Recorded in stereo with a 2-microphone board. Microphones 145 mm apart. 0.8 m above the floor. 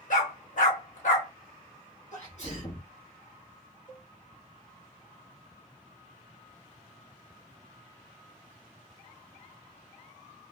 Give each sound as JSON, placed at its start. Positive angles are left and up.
{"t": 0.1, "sound": "a dog barking", "side_deg": 65, "distance_m": 1.3}
{"t": 2.1, "sound": "a sneeze", "side_deg": 55, "distance_m": 1.4}
{"t": 3.9, "sound": "a cowbell", "side_deg": 60, "distance_m": 1.7}